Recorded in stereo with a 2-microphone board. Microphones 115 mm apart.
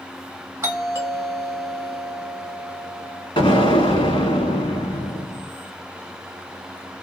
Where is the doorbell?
25° right (ahead or behind), 2 m.